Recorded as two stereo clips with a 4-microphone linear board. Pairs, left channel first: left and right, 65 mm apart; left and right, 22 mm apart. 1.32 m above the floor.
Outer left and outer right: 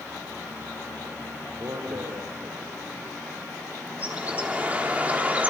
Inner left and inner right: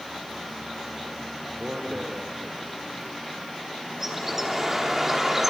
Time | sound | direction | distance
1.6 | a man speaking | 75° right (ahead or behind) | 4.5 m
4.0 | a bird | 20° right (ahead or behind) | 3.5 m